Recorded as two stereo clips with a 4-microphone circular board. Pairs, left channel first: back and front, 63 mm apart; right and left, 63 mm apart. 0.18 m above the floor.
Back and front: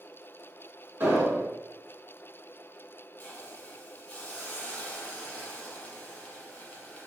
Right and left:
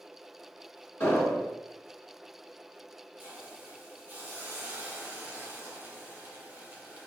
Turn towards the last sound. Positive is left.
turn(degrees=120)